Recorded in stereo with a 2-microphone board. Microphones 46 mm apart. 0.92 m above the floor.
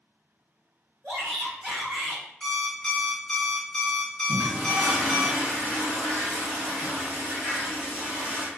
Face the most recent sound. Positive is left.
turn(degrees=-40)  # may be behind; listen again after turning